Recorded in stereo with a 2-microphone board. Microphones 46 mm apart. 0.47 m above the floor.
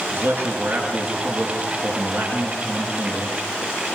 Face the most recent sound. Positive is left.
turn(degrees=-55)  # may be behind; listen again after turning